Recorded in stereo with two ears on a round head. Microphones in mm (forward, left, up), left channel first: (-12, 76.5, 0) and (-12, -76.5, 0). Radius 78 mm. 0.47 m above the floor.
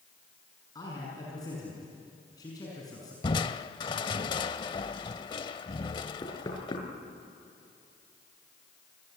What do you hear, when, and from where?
0.8 s a man speaking: 25° left (ahead or behind), 6 m
3.2 s crushing: 30° left (ahead or behind), 0.7 m
6.2 s knocking: 25° left (ahead or behind), 5.5 m